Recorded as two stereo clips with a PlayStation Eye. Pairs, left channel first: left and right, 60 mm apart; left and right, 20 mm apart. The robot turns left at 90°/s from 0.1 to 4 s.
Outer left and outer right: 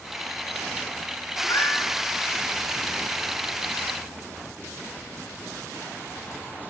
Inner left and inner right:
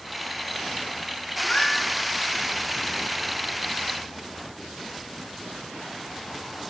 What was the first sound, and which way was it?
A cat meowing, 65° left.